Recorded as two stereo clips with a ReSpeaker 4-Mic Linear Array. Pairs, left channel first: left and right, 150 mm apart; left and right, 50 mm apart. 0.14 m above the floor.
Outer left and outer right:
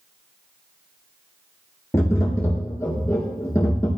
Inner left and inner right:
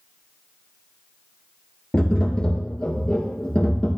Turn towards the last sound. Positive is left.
turn(degrees=20)  # may be behind; listen again after turning